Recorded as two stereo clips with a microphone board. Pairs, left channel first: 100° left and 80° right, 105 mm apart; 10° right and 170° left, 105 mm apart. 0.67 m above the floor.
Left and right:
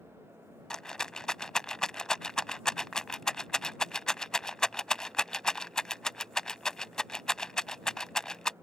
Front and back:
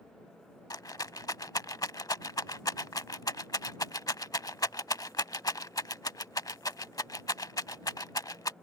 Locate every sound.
0.7 s a rattle: 20° left